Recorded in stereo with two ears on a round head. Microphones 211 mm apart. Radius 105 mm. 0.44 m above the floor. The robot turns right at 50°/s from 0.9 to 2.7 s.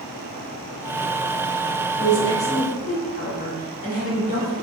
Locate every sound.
2.0 s a woman speaking: 25° left, 1.0 m; by 4.5 s 60° left, 1.0 m